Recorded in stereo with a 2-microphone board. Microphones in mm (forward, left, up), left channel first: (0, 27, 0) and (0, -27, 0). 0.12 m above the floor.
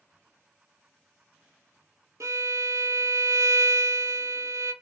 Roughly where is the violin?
Right.